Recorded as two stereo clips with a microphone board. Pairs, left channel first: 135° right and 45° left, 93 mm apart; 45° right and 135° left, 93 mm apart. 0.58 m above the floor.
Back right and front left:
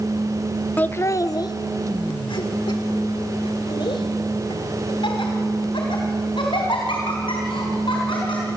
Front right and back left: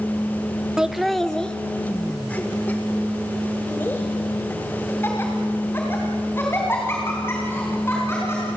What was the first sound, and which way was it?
Laughter, 165° right.